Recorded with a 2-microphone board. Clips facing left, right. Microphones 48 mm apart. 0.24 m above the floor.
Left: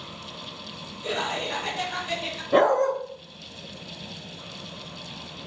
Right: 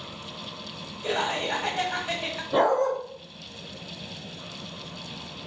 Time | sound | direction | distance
1.0 | laughter | 35° right (ahead or behind) | 1.3 m
2.5 | a dog barking | 55° left (ahead or behind) | 1.0 m